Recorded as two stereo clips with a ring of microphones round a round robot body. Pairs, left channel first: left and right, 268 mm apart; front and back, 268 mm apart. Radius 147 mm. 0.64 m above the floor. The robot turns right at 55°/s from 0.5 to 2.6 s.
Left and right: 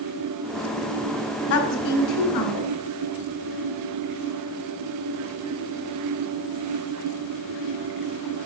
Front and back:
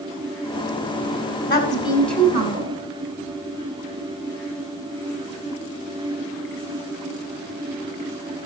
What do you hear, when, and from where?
1.5 s a woman speaking: 55° left, 2.5 m; by 2.8 s 115° left, 2.5 m